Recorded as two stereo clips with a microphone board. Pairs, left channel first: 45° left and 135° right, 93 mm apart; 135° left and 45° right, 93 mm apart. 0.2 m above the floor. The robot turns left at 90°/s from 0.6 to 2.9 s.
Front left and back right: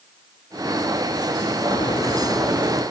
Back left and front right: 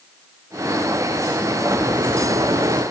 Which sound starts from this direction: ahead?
A crack, at 1.7 s.